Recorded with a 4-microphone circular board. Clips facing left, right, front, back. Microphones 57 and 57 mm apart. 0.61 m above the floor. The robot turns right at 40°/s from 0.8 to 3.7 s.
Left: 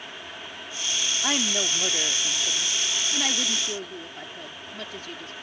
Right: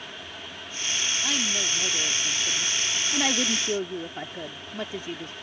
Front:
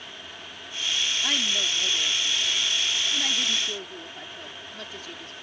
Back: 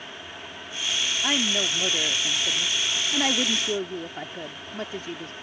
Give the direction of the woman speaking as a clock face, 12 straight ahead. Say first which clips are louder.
Left 5 dB, back 5 dB; 8 o'clock.